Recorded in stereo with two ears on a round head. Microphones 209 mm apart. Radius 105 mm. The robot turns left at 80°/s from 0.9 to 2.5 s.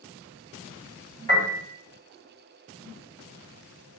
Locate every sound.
1.3 s a piano: 35° right (ahead or behind), 1.9 m; by 1.6 s 45° right (ahead or behind), 1.9 m